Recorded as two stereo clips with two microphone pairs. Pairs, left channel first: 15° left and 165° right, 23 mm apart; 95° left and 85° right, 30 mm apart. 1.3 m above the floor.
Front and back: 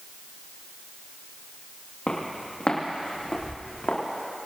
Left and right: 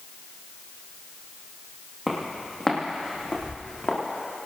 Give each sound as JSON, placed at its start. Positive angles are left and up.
{"t": 2.1, "sound": "footsteps", "azimuth_deg": 5, "distance_m": 3.0}